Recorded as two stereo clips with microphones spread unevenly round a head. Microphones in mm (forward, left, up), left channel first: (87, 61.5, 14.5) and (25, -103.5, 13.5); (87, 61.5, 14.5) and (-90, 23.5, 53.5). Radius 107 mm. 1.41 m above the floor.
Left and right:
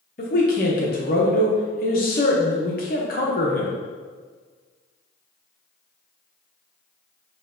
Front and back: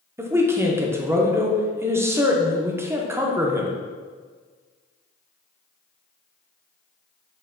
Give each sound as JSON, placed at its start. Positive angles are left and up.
{"t": 0.2, "sound": "a man speaking", "azimuth_deg": 120, "distance_m": 0.7}